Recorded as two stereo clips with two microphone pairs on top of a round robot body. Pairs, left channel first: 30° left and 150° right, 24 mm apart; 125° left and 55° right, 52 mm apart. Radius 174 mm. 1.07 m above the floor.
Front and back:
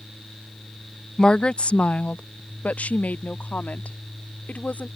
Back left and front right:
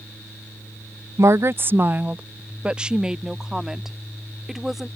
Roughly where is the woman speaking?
Ahead right.